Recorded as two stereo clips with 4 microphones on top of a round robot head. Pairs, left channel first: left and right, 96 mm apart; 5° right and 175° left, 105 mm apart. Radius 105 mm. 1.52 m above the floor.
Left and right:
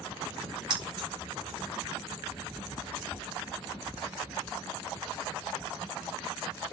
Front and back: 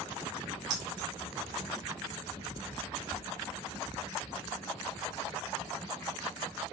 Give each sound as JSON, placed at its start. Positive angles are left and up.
{"t": 0.7, "sound": "keys jangling", "azimuth_deg": -130, "distance_m": 5.0}
{"t": 3.1, "sound": "a thud", "azimuth_deg": 45, "distance_m": 4.0}